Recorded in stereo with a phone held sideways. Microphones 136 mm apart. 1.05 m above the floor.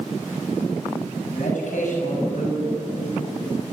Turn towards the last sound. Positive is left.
turn(degrees=70)  # may be behind; listen again after turning